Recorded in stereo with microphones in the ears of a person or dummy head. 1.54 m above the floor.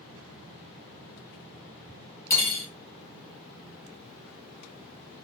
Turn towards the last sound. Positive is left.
turn(degrees=10)  # may be behind; listen again after turning